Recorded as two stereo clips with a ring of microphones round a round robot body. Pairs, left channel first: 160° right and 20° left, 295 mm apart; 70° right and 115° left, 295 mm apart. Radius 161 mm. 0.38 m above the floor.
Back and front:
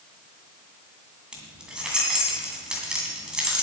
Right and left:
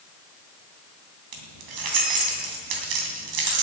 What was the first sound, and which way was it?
Keys jangling, 110° left.